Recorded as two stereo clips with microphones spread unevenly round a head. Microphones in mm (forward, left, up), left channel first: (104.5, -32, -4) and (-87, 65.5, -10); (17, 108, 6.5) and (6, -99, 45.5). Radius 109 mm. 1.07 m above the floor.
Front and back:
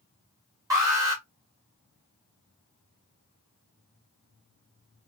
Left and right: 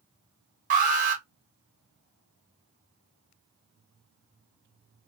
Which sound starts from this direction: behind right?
An alarm, at 0.7 s.